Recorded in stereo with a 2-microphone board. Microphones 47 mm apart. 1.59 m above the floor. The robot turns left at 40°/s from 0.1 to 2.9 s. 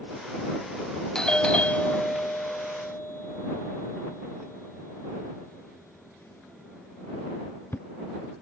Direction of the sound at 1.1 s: 15° left (ahead or behind).